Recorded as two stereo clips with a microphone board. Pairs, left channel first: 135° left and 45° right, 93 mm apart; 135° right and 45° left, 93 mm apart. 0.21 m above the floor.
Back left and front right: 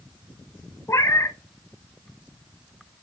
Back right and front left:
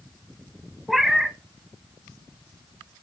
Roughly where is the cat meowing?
Behind left.